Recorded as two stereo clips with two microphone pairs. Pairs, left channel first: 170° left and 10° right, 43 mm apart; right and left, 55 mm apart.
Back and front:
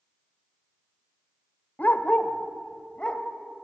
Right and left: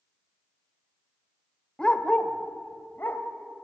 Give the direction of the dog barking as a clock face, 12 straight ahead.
5 o'clock.